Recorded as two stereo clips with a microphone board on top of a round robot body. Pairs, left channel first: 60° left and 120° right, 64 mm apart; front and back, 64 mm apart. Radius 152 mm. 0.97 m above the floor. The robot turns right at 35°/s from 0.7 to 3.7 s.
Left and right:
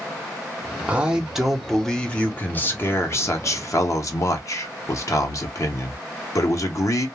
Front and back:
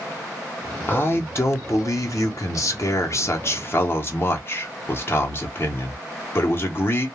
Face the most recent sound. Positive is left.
turn(degrees=45)